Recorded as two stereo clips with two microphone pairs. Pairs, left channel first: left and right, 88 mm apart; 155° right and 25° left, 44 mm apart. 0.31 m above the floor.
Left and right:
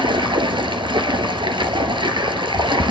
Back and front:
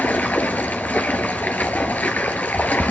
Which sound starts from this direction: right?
Running water, at 0.0 s.